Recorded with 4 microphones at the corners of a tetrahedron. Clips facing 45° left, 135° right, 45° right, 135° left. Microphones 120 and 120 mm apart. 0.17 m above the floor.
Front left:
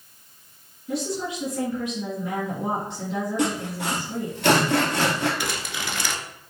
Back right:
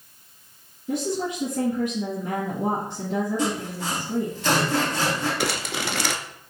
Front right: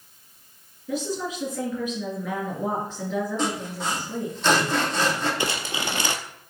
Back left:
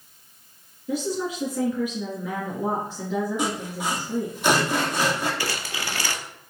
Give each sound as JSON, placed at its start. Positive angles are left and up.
{"t": 0.9, "sound": "a woman speaking", "azimuth_deg": -155, "distance_m": 2.5}
{"t": 3.4, "sound": "sawing", "azimuth_deg": 55, "distance_m": 1.5}
{"t": 5.4, "sound": "crumpling", "azimuth_deg": -110, "distance_m": 0.5}